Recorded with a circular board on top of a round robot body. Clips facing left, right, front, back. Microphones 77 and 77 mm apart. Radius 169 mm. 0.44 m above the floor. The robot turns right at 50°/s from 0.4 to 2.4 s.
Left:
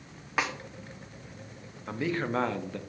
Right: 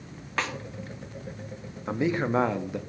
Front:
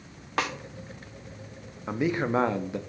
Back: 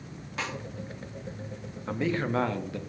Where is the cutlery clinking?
No cutlery clinking in this recording.